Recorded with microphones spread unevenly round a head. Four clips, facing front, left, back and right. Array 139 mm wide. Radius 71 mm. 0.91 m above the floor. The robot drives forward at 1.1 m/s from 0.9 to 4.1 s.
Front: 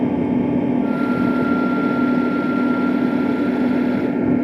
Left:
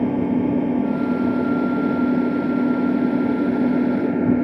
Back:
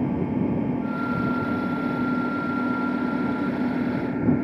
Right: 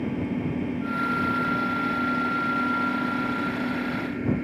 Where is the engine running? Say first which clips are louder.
Left 9 dB, front 6 dB; 40° left; by 4.5 s 50° left.